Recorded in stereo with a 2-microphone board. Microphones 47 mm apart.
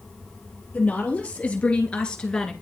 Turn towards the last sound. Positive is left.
turn(degrees=15)  # may be behind; listen again after turning